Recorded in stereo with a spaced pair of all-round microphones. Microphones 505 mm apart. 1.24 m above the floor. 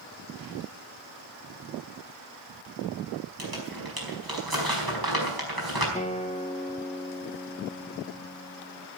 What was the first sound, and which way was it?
Crumpling, 45° right (ahead or behind).